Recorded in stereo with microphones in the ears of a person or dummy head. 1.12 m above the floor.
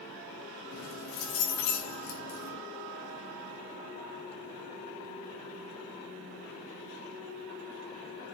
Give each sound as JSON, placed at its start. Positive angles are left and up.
{"t": 0.7, "sound": "keys jangling", "side_deg": 70, "distance_m": 4.0}